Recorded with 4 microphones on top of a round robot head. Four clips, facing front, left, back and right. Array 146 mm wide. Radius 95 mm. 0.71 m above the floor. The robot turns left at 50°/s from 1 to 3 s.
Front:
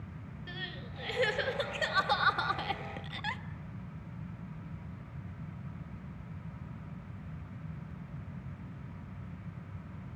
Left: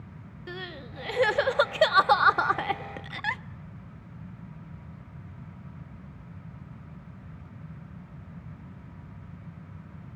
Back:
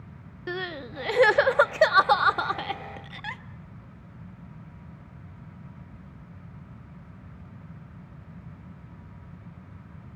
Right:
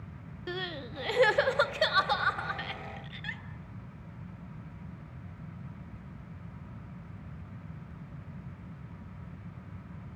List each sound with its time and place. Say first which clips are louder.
0.5 s crying: right 2 dB, back 13 dB; 170° right, 0.7 m; by 3.4 s 90° left, 0.7 m